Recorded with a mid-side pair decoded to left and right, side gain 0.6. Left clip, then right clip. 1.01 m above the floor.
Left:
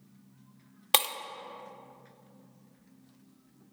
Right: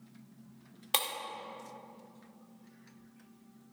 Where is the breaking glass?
35° left, 0.8 m.